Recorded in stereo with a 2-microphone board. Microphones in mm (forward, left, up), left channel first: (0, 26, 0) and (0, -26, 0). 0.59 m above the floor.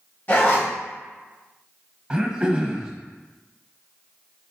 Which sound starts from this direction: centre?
Throat clearing, at 2.1 s.